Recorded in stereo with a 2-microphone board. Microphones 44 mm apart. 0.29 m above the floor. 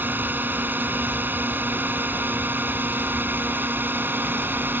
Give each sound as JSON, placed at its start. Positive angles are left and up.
{"t": 0.0, "sound": "a drone", "side_deg": -45}